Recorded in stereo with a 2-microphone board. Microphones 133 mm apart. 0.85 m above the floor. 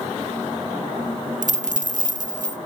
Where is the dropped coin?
75° right (ahead or behind), 0.6 m.